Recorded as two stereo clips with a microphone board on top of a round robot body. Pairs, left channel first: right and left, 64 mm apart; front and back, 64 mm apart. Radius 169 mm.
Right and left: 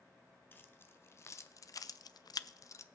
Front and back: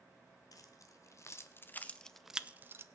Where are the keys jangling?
30° right, 1.2 m; by 2.9 s 135° right, 0.6 m.